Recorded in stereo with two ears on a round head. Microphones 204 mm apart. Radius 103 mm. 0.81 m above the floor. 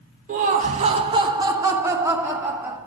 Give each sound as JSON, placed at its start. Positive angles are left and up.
{"t": 0.3, "sound": "laughter", "side_deg": -35, "distance_m": 0.9}